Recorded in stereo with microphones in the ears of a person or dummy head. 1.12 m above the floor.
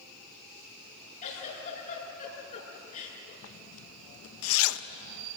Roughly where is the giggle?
Left.